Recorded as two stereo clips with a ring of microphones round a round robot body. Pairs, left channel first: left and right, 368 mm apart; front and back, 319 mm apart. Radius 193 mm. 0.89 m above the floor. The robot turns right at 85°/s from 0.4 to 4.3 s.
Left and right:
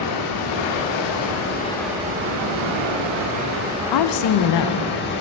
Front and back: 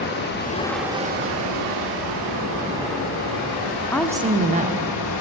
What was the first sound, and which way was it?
Running water, 55° left.